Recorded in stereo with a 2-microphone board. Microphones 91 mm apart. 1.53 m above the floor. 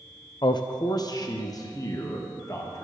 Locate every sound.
0.4 s a man speaking: 50° left (ahead or behind), 0.6 m; by 2.8 s 35° left (ahead or behind), 2 m